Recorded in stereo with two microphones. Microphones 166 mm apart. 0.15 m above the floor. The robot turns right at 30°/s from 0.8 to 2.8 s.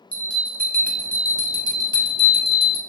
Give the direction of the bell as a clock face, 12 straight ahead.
12 o'clock.